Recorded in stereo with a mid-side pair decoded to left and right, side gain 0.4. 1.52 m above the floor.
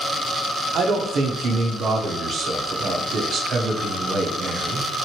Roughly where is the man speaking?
Ahead right.